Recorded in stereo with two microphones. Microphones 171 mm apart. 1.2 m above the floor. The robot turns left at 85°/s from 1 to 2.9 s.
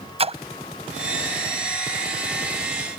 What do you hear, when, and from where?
0.2 s a splash: 35° right (ahead or behind)